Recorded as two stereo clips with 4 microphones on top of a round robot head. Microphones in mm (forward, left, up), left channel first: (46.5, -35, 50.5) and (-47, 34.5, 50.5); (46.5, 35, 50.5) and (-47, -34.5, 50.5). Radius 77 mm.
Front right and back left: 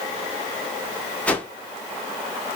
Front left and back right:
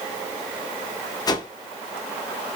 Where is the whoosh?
30° left, 0.8 m.